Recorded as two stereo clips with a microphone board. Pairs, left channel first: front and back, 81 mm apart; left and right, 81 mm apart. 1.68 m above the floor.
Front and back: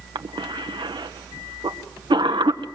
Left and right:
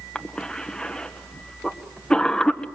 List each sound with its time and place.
0.1 s a cough: 170° left, 1.6 m